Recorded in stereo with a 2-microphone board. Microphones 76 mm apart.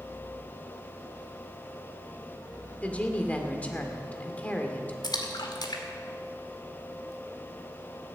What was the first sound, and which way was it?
A woman speaking, 20° left (ahead or behind).